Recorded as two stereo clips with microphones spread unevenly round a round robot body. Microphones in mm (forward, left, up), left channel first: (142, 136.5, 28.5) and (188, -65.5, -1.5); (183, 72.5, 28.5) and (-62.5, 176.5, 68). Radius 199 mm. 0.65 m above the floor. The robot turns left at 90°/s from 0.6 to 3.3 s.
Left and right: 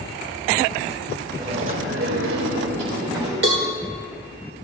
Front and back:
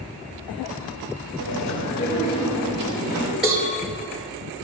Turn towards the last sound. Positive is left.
turn(degrees=-110)